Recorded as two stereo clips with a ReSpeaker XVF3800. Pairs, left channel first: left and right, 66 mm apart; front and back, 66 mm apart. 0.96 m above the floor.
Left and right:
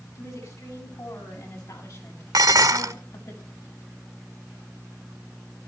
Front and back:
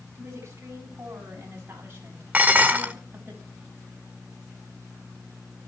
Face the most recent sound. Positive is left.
turn(degrees=-115)